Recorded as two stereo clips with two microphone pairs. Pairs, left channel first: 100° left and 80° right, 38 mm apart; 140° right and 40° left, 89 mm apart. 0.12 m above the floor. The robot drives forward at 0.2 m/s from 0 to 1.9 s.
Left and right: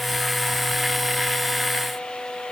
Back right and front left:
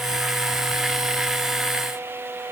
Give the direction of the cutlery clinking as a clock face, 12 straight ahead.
I don't hear cutlery clinking.